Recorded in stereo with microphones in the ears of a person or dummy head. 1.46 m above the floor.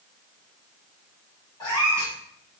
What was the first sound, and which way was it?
A cat meowing, 20° left (ahead or behind).